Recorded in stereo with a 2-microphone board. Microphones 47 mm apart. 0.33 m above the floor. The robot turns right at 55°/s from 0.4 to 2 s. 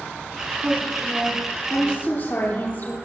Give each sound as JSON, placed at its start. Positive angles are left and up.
{"t": 0.6, "sound": "a woman speaking", "azimuth_deg": -25, "distance_m": 9.5}